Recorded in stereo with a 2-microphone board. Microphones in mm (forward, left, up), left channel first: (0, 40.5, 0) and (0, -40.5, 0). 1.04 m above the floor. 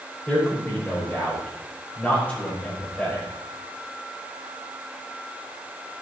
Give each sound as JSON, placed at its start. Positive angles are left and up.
{"t": 0.3, "sound": "a man speaking", "side_deg": 20, "distance_m": 5.0}